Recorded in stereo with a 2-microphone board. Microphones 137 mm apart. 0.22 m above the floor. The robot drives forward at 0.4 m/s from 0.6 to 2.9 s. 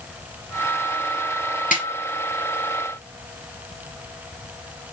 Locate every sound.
1.7 s a snare drum: 80° left, 4.5 m